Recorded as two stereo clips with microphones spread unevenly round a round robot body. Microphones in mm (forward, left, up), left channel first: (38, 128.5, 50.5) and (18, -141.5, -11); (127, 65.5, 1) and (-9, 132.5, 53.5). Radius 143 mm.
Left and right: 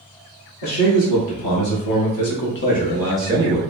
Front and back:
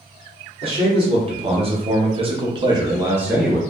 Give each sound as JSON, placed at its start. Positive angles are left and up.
{"t": 0.6, "sound": "a man speaking", "azimuth_deg": 90, "distance_m": 1.6}